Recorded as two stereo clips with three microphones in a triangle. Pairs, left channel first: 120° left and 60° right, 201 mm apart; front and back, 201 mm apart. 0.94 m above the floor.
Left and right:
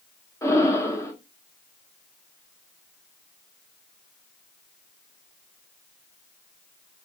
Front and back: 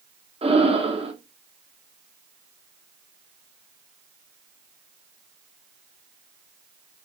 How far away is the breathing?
About 0.9 m.